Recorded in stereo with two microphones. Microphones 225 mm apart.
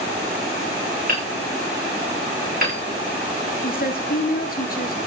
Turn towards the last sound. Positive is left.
turn(degrees=40)  # may be behind; listen again after turning